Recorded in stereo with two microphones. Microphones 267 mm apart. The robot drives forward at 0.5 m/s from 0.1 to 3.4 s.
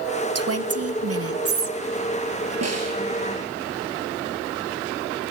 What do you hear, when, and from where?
0.3 s a woman speaking: 65° right (ahead or behind), 1.6 m; by 1.8 s 55° right (ahead or behind), 1.8 m
2.6 s a snare drum: 70° right (ahead or behind), 9 m